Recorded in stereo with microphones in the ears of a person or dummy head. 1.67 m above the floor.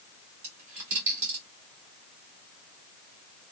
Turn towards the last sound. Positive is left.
turn(degrees=-35)  # may be behind; listen again after turning